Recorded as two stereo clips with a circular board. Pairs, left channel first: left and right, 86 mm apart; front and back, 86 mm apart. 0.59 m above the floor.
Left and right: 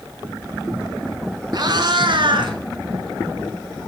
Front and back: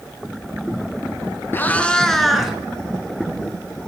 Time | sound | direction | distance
1.5 | a cat meowing | 60° right | 0.9 m